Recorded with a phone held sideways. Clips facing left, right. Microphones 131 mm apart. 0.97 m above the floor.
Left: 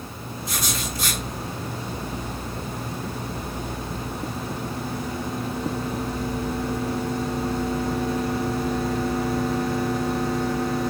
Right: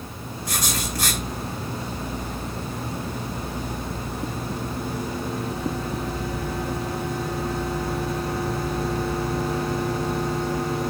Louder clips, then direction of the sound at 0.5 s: Right 1 dB; 75° right (ahead or behind).